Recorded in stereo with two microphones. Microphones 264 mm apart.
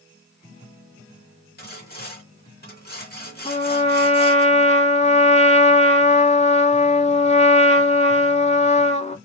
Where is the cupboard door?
No cupboard door in this recording.